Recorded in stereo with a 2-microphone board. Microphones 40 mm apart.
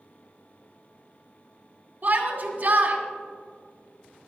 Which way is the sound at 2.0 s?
50° right (ahead or behind).